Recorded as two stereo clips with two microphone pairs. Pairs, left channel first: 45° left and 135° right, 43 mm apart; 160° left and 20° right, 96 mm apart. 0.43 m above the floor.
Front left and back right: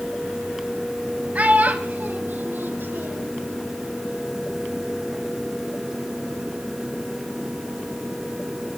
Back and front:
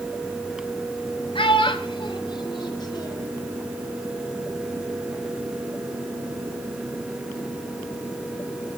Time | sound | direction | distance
1.4 | a child speaking | 175° left | 1.9 m